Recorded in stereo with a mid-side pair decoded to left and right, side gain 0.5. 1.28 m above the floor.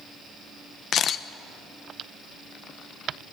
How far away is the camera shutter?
About 1.0 m.